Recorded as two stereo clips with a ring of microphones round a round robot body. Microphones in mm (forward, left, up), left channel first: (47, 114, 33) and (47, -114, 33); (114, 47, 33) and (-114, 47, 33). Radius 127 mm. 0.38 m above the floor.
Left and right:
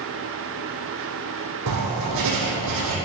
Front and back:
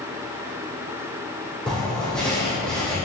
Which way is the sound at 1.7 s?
90° right.